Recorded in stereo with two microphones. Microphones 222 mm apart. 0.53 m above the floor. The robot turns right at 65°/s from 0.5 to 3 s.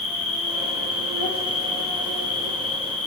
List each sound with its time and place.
0.0 s an insect: 75° right, 0.9 m; by 3.1 s 90° left, 0.9 m